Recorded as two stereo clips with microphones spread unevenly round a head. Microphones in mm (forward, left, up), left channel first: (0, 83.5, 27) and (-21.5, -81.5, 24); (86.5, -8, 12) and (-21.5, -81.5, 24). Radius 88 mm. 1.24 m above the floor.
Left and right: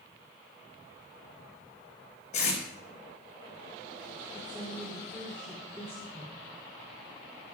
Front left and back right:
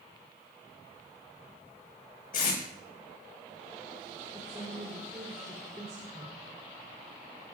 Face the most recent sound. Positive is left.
turn(degrees=155)